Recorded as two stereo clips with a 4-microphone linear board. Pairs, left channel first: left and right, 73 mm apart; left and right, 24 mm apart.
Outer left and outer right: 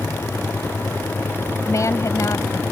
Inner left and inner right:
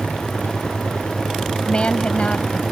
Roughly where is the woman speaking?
Left.